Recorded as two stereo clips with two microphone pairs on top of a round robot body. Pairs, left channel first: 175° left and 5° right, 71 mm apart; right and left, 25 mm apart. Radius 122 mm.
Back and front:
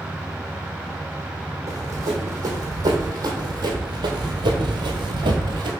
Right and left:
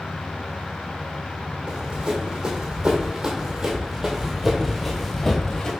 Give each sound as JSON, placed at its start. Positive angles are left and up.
{"t": 1.7, "sound": "running footsteps", "azimuth_deg": 45, "distance_m": 2.5}